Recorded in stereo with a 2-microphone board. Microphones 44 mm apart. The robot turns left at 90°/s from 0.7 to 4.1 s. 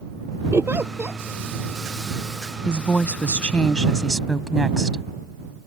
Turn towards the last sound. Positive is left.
turn(degrees=0)